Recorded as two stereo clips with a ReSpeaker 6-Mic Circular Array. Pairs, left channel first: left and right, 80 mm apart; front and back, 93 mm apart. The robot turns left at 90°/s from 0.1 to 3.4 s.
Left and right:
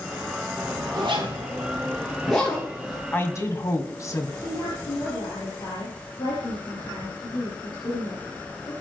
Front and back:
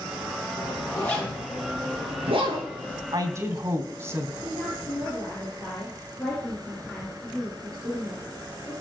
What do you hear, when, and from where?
0.6 s a zipper: 20° right, 8 m; by 3.0 s 120° left, 8 m
3.1 s a woman speaking: 150° left, 2.5 m; by 4.3 s 125° left, 2.5 m
4.4 s a woman speaking: 85° left, 6 m